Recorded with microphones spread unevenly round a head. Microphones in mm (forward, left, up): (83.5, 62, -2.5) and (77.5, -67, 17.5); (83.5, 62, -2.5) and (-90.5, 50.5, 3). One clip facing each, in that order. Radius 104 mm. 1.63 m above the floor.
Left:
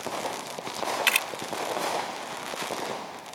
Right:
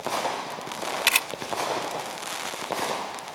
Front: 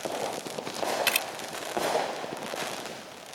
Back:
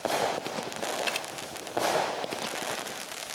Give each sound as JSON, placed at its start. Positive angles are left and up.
{"t": 1.1, "sound": "a camera shutter", "azimuth_deg": -40}